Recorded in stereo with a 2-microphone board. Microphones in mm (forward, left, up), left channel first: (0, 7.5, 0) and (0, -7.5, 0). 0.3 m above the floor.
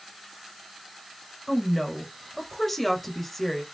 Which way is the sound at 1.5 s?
15° left (ahead or behind).